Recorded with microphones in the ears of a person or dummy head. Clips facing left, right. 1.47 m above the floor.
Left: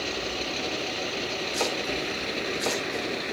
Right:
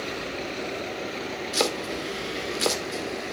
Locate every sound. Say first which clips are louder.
1.5 s chopping: right 3 dB; 65° right (ahead or behind), 2 m